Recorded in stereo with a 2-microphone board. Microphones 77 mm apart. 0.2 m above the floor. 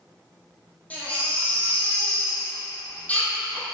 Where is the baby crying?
20° left (ahead or behind), 4 m.